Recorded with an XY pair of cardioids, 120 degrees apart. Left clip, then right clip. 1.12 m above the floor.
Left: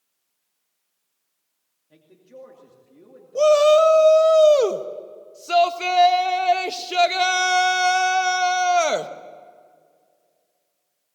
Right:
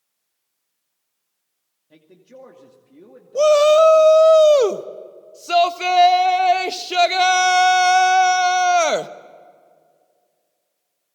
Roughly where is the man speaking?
Ahead right.